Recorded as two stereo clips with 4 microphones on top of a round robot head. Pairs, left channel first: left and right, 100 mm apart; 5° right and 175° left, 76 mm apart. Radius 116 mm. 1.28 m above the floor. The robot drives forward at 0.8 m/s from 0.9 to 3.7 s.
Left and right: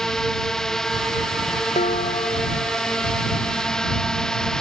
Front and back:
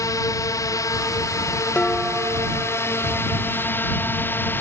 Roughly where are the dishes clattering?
Ahead left.